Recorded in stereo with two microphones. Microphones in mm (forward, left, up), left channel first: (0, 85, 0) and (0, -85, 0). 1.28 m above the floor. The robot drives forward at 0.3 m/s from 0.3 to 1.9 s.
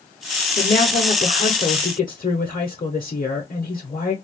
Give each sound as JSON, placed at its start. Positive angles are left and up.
{"t": 0.6, "sound": "a woman speaking", "side_deg": 50, "distance_m": 0.9}